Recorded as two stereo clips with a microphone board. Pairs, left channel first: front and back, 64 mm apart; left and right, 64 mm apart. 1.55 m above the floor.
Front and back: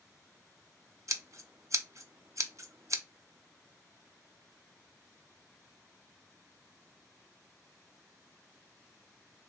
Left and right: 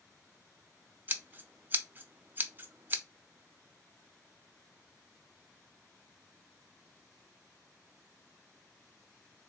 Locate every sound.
1.1 s scissors: 150° right, 0.5 m